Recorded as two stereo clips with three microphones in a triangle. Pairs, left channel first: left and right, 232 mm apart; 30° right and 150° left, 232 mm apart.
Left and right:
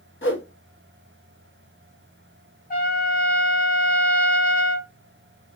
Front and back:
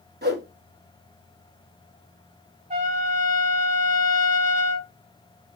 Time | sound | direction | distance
0.2 | a whoosh | 110° left | 1.1 m
2.7 | a trumpet | 110° left | 1.2 m